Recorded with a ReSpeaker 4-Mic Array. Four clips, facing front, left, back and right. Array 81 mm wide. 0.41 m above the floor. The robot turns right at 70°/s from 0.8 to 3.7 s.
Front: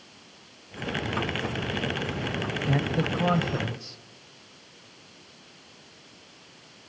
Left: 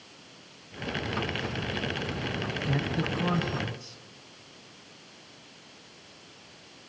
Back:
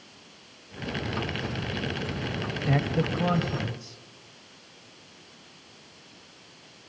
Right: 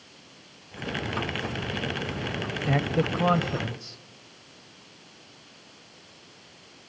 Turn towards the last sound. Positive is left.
turn(degrees=-50)